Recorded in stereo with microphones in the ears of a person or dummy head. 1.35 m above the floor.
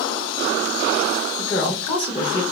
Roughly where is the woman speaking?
Left.